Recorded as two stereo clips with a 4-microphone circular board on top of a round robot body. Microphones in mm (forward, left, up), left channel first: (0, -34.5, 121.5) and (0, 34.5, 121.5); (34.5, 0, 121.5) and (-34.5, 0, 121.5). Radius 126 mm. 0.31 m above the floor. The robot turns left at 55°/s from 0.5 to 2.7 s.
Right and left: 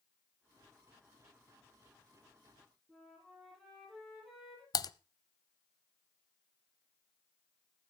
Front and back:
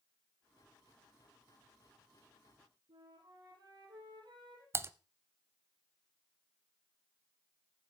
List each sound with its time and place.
2.9 s a flute: straight behind, 8.5 m
4.7 s typing on a keyboard: 125° right, 0.6 m